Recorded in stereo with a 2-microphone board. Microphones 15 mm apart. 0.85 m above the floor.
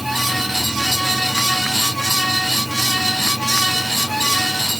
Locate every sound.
Only background noise.